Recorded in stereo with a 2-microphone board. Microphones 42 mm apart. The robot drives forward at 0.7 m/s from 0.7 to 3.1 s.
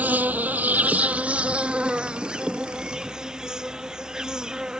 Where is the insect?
40° right (ahead or behind); by 4.8 s 15° right (ahead or behind).